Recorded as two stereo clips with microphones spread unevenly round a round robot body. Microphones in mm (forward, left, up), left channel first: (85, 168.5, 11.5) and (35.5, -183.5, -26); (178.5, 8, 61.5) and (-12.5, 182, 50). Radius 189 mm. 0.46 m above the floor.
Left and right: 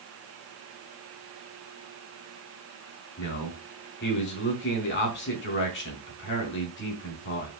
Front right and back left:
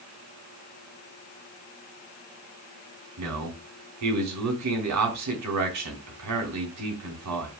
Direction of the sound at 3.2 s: 145° left.